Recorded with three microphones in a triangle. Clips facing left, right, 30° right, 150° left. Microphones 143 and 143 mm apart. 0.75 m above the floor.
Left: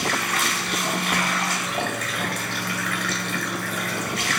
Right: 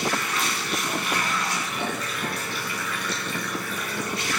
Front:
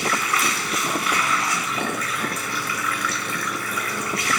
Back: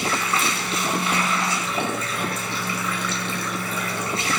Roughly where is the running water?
Left.